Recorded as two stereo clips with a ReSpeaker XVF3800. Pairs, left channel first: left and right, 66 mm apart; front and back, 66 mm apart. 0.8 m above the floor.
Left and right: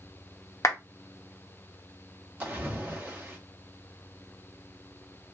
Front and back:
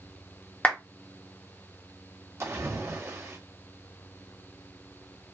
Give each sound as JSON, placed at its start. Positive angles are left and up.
{"t": 0.6, "sound": "a clap", "azimuth_deg": 65, "distance_m": 0.8}
{"t": 2.4, "sound": "a splash", "azimuth_deg": -150, "distance_m": 1.1}